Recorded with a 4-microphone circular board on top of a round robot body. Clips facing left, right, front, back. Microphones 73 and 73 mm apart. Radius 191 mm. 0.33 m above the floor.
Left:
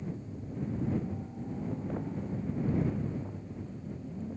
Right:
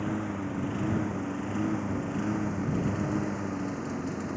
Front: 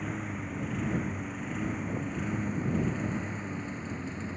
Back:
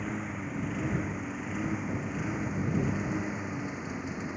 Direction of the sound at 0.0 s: 95° right.